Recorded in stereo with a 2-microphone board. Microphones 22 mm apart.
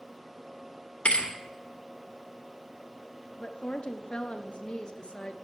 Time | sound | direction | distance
1.1 | a thud | 55° left (ahead or behind) | 1.7 m
3.4 | a woman speaking | 45° left (ahead or behind) | 1.1 m